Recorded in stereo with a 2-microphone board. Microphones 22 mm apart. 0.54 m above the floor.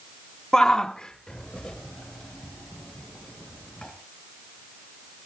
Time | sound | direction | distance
0.5 | a shout | 25° left (ahead or behind) | 0.6 m